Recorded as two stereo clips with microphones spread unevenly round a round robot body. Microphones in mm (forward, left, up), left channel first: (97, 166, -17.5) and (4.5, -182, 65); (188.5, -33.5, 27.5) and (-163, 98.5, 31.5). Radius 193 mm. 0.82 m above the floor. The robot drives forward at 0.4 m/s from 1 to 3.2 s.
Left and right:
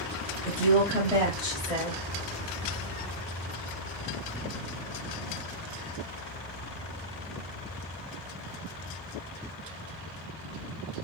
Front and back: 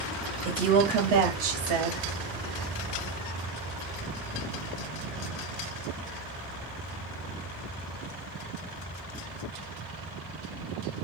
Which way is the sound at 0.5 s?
155° left.